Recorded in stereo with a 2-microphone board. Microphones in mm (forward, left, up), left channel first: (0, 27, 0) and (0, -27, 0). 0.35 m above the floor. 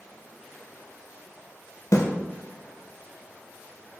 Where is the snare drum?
75° left (ahead or behind), 0.8 m.